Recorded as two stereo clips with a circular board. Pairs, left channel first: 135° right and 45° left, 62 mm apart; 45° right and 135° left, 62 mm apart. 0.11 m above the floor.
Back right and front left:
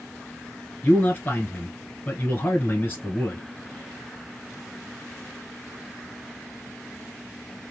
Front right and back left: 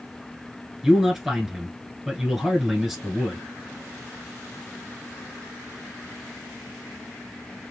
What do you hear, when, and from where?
0.8 s a man speaking: 145° right, 1.3 m